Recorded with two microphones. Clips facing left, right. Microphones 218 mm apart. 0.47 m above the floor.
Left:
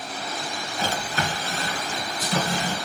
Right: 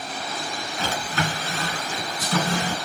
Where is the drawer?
85° right, 2 m.